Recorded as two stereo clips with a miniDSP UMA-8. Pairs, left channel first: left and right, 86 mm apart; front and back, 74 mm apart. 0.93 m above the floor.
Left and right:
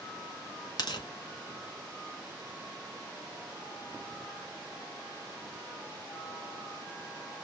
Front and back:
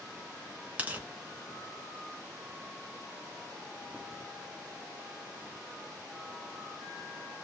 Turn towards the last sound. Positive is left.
turn(degrees=115)